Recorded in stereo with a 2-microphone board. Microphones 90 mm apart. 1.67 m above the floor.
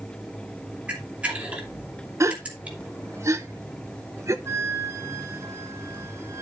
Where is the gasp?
30° right (ahead or behind), 0.8 m.